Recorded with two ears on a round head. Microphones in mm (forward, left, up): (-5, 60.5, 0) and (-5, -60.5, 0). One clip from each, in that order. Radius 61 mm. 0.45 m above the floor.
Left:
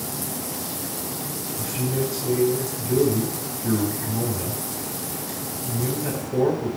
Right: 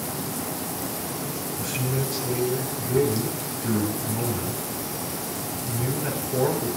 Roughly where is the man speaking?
Right.